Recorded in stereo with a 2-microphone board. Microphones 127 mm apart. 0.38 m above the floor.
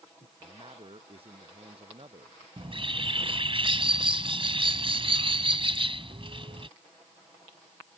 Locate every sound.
0.4 s a man speaking: 50° right (ahead or behind)
2.6 s a bird: 45° right (ahead or behind)